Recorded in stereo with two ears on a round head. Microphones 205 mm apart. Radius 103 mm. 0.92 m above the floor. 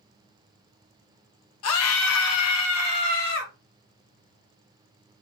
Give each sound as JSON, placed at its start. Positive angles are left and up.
{"t": 1.6, "sound": "a scream", "side_deg": 60, "distance_m": 0.5}